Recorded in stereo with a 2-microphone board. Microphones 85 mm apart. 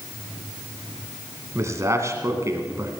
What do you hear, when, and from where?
1.6 s a man speaking: 35° right (ahead or behind), 2 m